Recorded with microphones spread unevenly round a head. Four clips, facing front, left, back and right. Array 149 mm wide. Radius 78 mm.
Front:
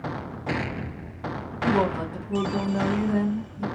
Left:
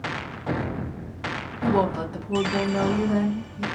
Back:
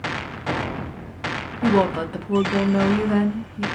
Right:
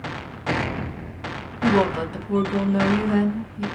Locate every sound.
1.6 s a woman speaking: straight behind, 0.9 m